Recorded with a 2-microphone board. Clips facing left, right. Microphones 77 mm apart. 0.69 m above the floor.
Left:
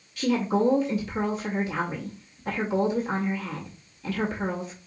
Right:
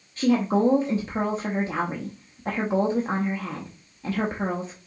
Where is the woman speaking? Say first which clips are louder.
Right 3 dB; 35° right (ahead or behind), 0.8 m.